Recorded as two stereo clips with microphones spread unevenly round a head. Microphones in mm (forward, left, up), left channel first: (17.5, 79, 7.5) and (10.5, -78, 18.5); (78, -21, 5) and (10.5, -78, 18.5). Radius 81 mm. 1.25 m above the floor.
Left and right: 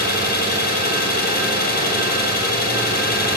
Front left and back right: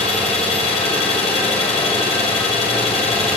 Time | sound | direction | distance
0.0 | an engine running | 60° left | 4.5 m